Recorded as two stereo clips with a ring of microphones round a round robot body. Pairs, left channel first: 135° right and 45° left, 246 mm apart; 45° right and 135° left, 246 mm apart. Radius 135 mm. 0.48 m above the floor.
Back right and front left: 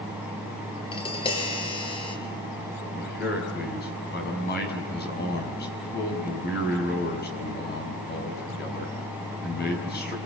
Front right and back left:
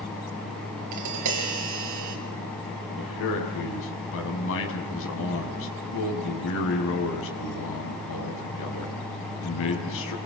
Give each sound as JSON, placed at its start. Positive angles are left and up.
{"t": 0.9, "sound": "tapping", "azimuth_deg": 155, "distance_m": 5.5}
{"t": 3.0, "sound": "a man speaking", "azimuth_deg": -80, "distance_m": 5.5}